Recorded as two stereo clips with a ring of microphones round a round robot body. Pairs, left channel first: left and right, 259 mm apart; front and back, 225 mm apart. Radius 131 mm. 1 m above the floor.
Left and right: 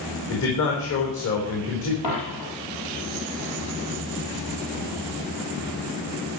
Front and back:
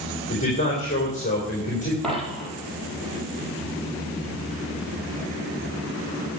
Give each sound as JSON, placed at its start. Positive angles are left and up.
{"t": 0.3, "sound": "a man speaking", "azimuth_deg": 55, "distance_m": 4.0}
{"t": 2.0, "sound": "a dropped coin", "azimuth_deg": 90, "distance_m": 5.0}